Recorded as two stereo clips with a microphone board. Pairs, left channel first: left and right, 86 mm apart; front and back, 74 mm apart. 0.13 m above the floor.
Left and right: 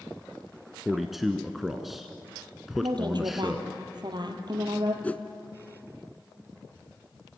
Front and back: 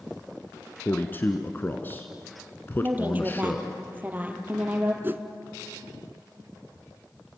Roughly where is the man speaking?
Ahead.